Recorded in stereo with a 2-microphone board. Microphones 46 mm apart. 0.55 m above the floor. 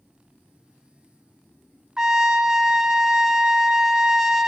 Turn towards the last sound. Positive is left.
turn(degrees=-15)  # may be behind; listen again after turning